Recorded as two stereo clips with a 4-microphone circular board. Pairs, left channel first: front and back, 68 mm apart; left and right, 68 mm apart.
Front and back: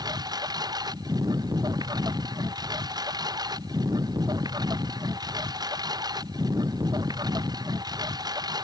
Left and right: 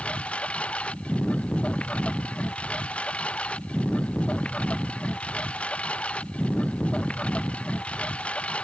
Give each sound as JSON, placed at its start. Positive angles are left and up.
{"t": 0.0, "sound": "a lawn mower", "azimuth_deg": 165}